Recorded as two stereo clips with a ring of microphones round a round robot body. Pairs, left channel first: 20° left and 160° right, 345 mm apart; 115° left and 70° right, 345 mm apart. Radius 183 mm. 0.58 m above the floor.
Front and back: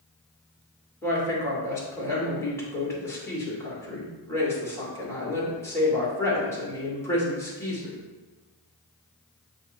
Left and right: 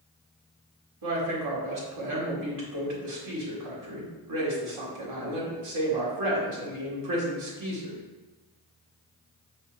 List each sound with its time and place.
1.0 s a woman speaking: 60° right, 2.5 m